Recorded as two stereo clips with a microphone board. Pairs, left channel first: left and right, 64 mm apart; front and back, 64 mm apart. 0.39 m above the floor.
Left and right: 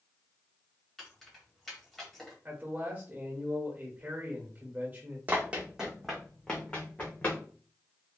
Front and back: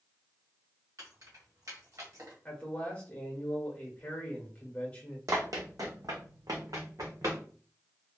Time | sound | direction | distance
1.0 | keys jangling | 175° left | 1.4 m
2.5 | a man speaking | 50° right | 1.0 m
5.3 | running footsteps | 150° right | 1.0 m